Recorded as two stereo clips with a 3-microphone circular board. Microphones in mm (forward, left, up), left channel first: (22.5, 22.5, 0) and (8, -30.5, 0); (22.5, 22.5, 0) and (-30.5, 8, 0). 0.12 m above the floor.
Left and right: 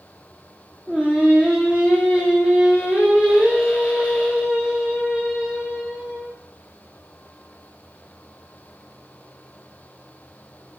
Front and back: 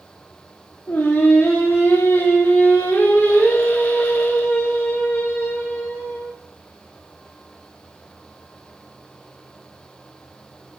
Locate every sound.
0.9 s singing: 40° right, 3 m